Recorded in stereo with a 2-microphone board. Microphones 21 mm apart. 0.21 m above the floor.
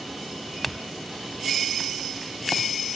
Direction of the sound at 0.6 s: Centre (ahead or behind).